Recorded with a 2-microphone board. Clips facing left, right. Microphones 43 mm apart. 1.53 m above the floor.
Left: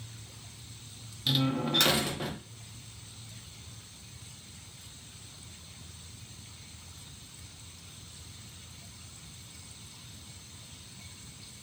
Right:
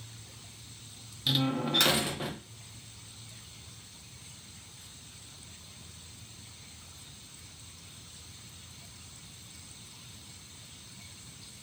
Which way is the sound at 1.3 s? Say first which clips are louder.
Even; 5° right (ahead or behind).